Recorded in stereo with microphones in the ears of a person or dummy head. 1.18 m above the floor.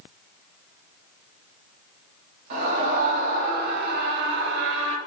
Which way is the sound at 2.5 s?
45° right (ahead or behind).